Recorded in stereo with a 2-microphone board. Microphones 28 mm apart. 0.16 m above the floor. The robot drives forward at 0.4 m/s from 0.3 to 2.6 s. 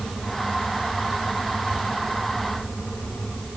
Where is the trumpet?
No trumpet in this recording.